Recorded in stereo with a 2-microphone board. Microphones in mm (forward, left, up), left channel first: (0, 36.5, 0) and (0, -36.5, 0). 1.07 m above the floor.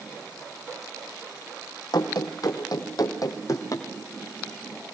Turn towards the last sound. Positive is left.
turn(degrees=50)  # may be behind; listen again after turning